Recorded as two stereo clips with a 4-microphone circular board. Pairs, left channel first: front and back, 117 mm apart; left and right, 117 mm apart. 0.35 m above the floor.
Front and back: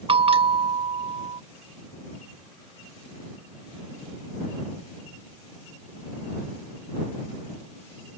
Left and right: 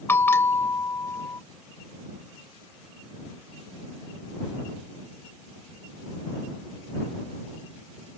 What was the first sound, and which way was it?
A bell, 155° left.